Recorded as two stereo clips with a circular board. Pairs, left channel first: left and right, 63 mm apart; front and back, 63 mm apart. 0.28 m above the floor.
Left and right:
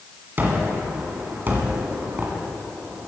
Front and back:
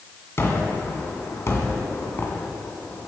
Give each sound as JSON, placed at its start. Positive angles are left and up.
{"t": 0.4, "sound": "a gunshot", "azimuth_deg": -40, "distance_m": 2.0}